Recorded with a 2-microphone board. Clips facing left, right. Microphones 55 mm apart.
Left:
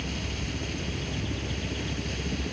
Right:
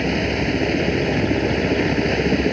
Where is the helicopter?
65° right (ahead or behind).